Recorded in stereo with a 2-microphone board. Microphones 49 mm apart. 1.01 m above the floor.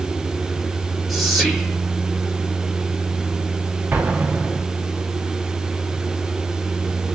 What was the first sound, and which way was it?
Whispering, centre (ahead or behind).